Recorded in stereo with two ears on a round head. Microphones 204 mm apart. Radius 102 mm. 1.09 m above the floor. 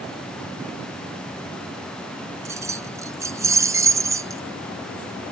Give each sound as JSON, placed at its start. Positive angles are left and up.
{"t": 2.5, "sound": "keys jangling", "side_deg": -15}